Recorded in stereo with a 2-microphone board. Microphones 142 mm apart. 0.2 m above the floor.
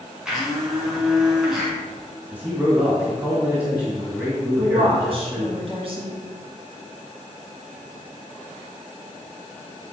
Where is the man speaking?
10° right (ahead or behind), 1.8 m.